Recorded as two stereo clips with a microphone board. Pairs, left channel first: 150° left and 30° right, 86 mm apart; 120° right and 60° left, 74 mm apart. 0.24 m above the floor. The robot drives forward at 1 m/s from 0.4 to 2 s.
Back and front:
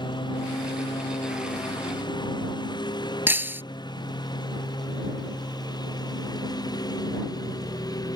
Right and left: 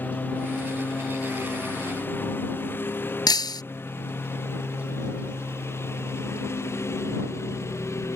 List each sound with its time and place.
0.0 s a lawn mower: 175° left; by 8.2 s 170° right
3.3 s breaking glass: 95° right